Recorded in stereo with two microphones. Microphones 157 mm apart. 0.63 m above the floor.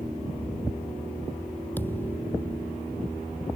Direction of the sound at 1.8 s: 10° left (ahead or behind).